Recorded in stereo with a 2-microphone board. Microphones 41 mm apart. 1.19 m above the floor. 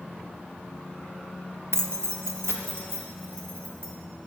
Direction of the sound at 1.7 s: 80° right.